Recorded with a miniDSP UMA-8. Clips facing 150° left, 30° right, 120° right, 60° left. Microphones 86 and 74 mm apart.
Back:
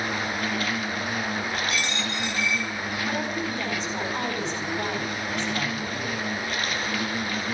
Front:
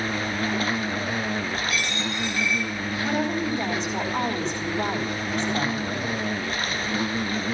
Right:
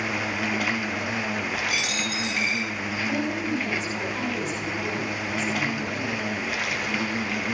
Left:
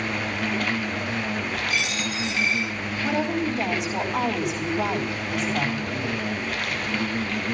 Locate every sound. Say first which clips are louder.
0.0 s an insect: front 1 dB, even; 40° right, 0.8 m
1.7 s a dropped coin: front 1 dB, left 1 dB; 145° right, 7.5 m
3.0 s a woman speaking: front 5 dB, left 4 dB; 35° left, 3.5 m